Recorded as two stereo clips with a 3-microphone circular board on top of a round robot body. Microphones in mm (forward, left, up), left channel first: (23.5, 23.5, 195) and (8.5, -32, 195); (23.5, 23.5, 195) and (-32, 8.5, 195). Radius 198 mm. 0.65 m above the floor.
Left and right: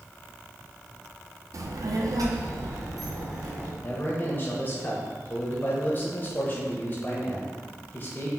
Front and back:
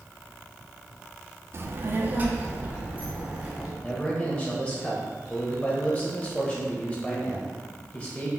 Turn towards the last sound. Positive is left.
turn(degrees=65)